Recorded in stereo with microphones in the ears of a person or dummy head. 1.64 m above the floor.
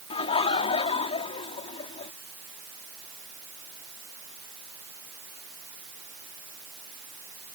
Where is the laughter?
30° left (ahead or behind).